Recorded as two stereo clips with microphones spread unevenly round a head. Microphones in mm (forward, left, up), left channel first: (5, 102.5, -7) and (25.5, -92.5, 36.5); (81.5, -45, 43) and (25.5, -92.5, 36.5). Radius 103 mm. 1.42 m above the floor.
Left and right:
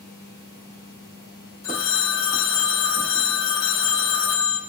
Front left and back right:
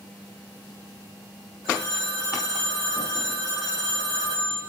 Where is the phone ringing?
105° left, 2.5 m.